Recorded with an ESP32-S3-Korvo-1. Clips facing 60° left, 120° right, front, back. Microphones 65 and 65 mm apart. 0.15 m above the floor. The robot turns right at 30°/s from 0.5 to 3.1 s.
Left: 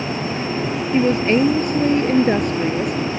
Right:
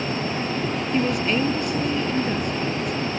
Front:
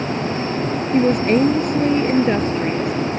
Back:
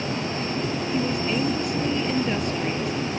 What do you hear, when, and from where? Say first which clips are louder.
0.9 s a woman speaking: left 7 dB, front 11 dB; 5° left; by 2.9 s 65° left